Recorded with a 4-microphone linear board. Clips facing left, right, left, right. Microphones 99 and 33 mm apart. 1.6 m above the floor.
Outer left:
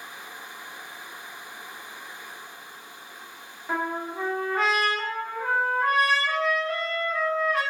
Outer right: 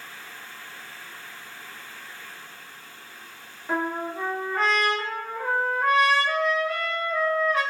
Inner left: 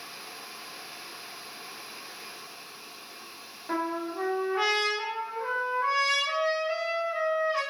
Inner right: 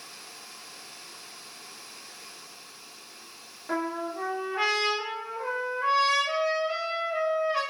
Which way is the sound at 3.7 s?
Centre (ahead or behind).